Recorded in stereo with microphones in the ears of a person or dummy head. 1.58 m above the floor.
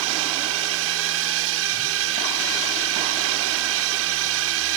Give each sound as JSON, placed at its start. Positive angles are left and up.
{"t": 0.0, "sound": "a drone", "side_deg": -75}